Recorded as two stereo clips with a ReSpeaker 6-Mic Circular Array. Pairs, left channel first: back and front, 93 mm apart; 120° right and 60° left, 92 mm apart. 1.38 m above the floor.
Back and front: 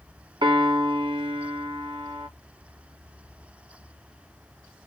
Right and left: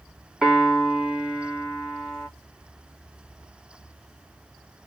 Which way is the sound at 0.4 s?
20° right.